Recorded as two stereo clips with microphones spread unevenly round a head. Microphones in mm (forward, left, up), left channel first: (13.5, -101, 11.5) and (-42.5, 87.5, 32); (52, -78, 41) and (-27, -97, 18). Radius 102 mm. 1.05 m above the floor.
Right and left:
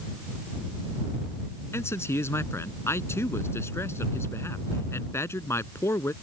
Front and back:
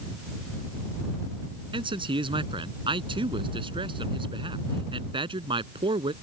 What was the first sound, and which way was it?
A man speaking, 150° right.